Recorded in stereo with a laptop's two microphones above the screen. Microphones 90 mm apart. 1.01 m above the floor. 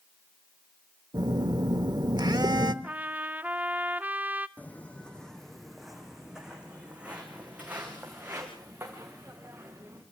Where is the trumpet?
20° right (ahead or behind), 0.5 m.